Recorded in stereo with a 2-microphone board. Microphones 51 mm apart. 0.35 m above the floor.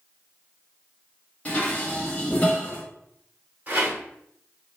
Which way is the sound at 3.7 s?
30° right (ahead or behind).